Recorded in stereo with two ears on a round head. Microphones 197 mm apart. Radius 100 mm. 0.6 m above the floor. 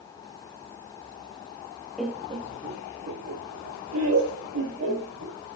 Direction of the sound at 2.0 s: Centre (ahead or behind).